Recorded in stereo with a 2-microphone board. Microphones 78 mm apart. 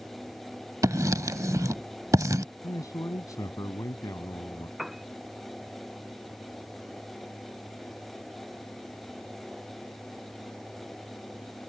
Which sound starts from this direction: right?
Writing, at 0.8 s.